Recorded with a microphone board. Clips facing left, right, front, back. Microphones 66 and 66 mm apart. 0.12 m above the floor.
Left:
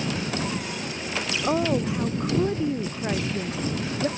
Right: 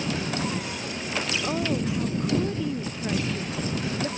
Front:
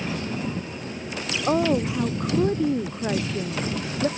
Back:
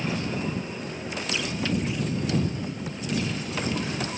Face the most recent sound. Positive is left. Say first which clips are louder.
# left 6 dB, front 11 dB
turn(degrees=25)